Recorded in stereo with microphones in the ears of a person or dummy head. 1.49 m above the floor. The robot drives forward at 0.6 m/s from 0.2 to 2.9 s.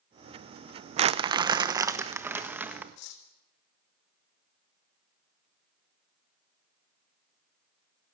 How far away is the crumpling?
About 0.7 m.